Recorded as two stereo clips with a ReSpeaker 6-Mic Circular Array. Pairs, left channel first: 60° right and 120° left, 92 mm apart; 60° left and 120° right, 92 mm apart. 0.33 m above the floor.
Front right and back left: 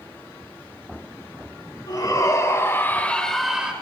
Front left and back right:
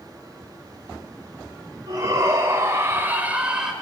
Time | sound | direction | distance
1.9 | a shout | 80° right | 2.5 m